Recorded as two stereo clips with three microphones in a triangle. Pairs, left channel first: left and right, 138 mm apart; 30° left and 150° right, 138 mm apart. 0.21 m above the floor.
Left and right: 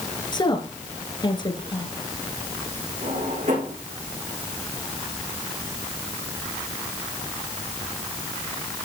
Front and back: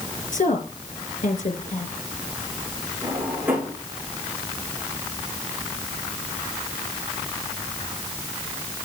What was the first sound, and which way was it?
A woman speaking, 35° left.